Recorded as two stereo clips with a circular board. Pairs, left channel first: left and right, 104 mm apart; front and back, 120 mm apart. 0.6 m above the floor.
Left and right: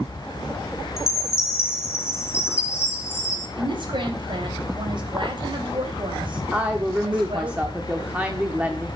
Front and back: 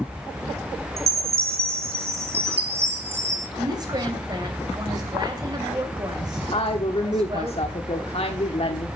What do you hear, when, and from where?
1.0 s a chime: 150° left, 2 m
3.6 s a woman speaking: 125° right, 3 m
6.5 s a woman speaking: 15° right, 1.2 m